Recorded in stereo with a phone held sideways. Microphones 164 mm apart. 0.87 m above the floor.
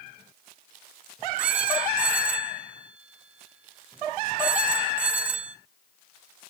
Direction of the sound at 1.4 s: 10° right (ahead or behind).